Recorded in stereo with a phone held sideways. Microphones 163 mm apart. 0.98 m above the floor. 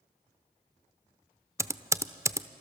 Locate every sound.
1.6 s typing on a keyboard: 15° right (ahead or behind), 0.6 m